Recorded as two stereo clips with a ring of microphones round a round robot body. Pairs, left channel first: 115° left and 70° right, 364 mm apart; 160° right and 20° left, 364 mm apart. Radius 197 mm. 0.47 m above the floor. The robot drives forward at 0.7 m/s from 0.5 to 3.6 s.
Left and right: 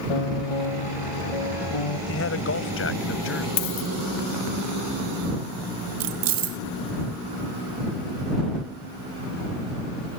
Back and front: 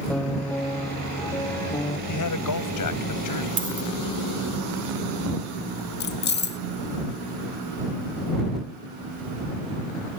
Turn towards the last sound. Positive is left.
turn(degrees=-95)